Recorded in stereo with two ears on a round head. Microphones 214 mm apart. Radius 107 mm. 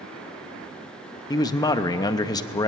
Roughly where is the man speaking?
Centre.